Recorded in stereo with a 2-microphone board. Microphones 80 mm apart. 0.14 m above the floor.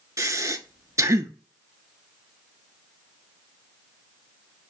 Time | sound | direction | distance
0.2 | breathing | 40° right (ahead or behind) | 0.5 m